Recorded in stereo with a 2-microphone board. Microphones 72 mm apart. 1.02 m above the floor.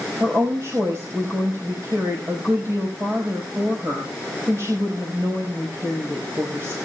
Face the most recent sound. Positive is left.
turn(degrees=-45)  # may be behind; listen again after turning